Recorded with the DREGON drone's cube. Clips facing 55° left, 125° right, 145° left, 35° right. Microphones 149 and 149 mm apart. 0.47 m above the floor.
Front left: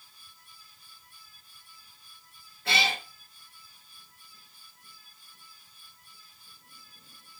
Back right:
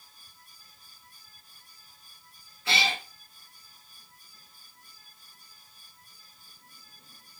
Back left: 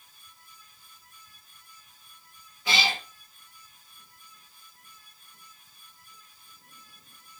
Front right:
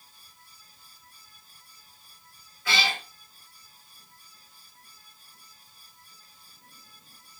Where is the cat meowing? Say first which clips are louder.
Even, back left 1 dB; 75° left, 1.2 m.